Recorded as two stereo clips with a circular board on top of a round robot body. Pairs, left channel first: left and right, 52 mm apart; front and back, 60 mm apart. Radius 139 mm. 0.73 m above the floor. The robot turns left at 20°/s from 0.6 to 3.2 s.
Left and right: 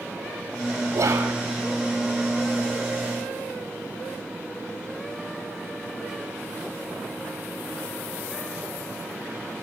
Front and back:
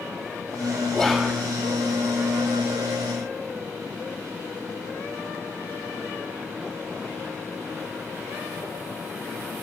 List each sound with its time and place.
0.9 s whispering: 95° right, 2 m; by 1.3 s 105° right, 2 m